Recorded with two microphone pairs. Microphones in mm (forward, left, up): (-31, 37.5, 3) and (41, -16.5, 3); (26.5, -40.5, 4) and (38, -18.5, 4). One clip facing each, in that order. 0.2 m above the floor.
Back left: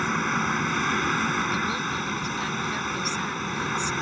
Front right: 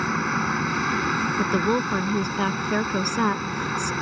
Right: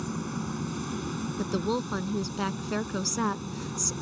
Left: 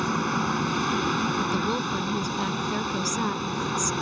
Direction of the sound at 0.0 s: 50° left.